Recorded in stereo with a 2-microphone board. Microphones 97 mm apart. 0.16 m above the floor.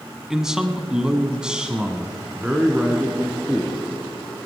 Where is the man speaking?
5° right (ahead or behind), 1.0 m.